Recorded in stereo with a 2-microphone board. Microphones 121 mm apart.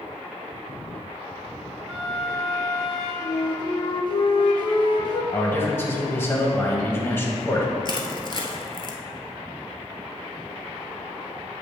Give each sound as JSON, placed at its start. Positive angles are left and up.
{"t": 1.9, "sound": "a flute", "side_deg": -5, "distance_m": 1.6}
{"t": 3.2, "sound": "a flute", "side_deg": 40, "distance_m": 0.7}
{"t": 5.3, "sound": "a man speaking", "side_deg": 20, "distance_m": 1.1}
{"t": 7.8, "sound": "crushing", "side_deg": 40, "distance_m": 0.8}